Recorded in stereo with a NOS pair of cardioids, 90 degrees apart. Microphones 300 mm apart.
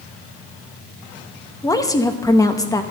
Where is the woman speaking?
10° left, 1.0 m.